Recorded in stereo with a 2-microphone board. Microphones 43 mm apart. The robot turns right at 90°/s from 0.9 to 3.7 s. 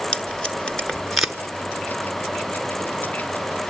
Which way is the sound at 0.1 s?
20° left (ahead or behind).